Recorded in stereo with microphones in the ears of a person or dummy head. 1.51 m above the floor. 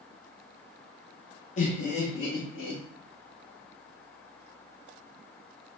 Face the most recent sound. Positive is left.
turn(degrees=70)  # may be behind; listen again after turning